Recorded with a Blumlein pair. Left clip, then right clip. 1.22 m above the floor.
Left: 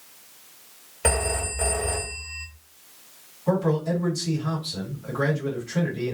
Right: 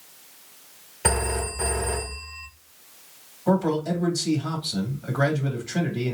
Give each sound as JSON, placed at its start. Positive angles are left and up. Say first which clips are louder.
{"t": 1.0, "sound": "a phone ringing", "louder": "even", "azimuth_deg": 10, "distance_m": 1.9}
{"t": 3.5, "sound": "a man speaking", "louder": "right 1 dB", "azimuth_deg": -70, "distance_m": 2.0}